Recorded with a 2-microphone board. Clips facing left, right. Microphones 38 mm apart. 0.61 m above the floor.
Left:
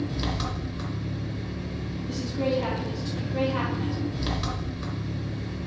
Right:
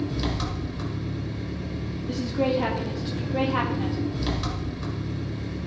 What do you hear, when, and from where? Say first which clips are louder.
0.0 s an engine running: right 1 dB; 5° left (ahead or behind), 2.5 m
2.1 s a woman speaking: right 3 dB; 25° right (ahead or behind), 1.0 m